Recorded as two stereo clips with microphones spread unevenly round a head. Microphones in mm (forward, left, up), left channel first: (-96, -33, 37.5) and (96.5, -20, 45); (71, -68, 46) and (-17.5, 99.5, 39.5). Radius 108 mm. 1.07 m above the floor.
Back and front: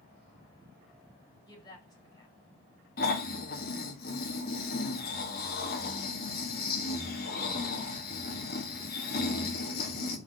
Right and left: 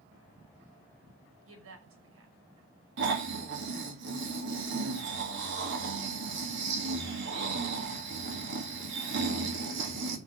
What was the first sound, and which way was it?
A woman speaking, 110° left.